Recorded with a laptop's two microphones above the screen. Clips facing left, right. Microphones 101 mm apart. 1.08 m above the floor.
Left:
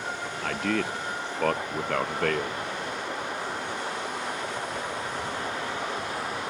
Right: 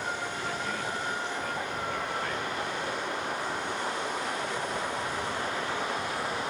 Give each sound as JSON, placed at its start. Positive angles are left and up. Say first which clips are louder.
{"t": 0.4, "sound": "a man speaking", "louder": "left 9 dB", "side_deg": 80}